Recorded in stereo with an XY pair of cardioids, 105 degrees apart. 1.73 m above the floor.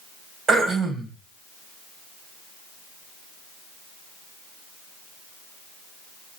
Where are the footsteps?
No footsteps in this recording.